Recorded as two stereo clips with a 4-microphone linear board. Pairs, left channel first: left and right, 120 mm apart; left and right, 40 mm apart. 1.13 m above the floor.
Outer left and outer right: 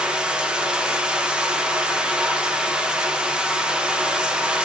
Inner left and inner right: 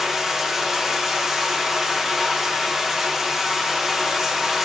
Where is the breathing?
I don't hear breathing.